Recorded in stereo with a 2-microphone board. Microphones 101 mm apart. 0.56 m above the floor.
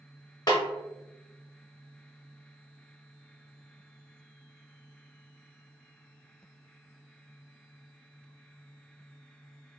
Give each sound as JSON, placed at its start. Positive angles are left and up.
{"t": 0.5, "sound": "a snare drum", "side_deg": 45, "distance_m": 0.9}